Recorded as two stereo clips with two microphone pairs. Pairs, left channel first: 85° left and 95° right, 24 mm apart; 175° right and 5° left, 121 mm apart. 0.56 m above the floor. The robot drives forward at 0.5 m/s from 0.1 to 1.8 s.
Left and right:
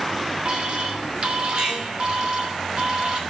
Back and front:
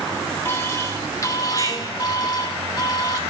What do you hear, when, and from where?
0.5 s an alarm: 115° right, 2.5 m; by 3.2 s 130° right, 3 m